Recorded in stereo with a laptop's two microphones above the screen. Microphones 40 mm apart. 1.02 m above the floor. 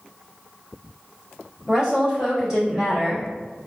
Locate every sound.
1.7 s a woman speaking: 20° right (ahead or behind), 1.3 m